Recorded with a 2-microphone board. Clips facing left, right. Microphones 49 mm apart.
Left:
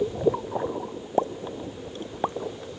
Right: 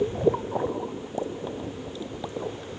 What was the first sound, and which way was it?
A pop, 50° left (ahead or behind).